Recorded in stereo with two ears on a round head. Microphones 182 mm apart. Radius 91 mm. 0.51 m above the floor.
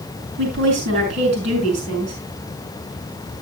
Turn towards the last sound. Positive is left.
turn(degrees=-35)  # may be behind; listen again after turning